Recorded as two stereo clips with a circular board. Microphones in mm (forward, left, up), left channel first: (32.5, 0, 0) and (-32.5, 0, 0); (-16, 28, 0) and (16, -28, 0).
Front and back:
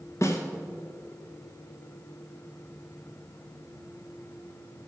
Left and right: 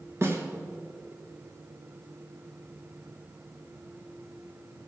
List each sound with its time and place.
0.2 s a snare drum: 25° right, 2.0 m